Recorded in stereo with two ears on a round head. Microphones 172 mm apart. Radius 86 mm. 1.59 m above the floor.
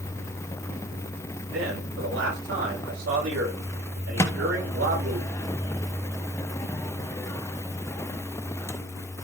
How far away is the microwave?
About 1.0 m.